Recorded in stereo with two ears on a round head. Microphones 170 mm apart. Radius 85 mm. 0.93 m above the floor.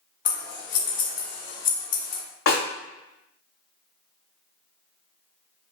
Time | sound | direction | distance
0.2 | scissors | 45° left (ahead or behind) | 1.6 m
2.5 | a snare drum | 85° left | 2.5 m